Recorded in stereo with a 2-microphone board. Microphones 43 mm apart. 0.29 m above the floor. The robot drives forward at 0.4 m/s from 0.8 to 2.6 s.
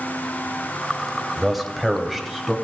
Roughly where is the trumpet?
No trumpet in this recording.